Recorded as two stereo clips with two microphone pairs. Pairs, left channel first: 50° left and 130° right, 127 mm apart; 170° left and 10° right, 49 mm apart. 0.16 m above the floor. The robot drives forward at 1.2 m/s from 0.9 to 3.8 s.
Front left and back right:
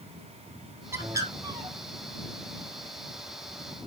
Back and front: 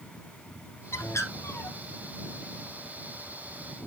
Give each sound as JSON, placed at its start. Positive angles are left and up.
{"t": 0.9, "sound": "a bird", "azimuth_deg": 165, "distance_m": 0.8}